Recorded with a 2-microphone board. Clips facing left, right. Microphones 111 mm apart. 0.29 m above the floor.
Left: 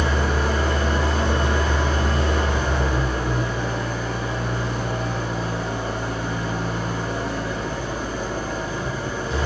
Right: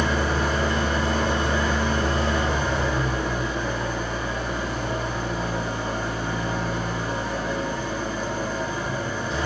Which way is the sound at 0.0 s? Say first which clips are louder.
Left 1 dB; 65° left (ahead or behind).